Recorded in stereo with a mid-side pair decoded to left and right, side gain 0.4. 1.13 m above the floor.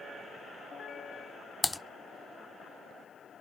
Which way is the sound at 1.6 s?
5° left.